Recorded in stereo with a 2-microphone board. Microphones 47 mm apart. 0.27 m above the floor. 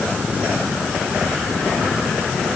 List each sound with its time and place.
Only background noise.